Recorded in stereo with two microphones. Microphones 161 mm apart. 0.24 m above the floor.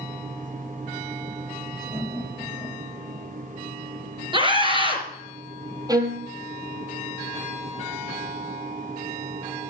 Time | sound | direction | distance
1.9 | laughter | 15° right (ahead or behind) | 5 m
4.3 | a scream | 30° right (ahead or behind) | 3.5 m
5.9 | a violin | 25° right (ahead or behind) | 2.0 m